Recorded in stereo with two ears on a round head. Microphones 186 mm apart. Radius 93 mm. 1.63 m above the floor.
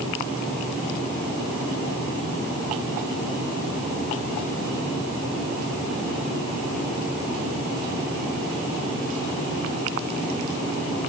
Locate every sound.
Only background noise.